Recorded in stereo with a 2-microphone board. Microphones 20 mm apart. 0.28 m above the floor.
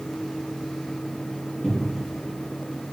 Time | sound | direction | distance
1.6 | a cupboard door | 30° left (ahead or behind) | 3 m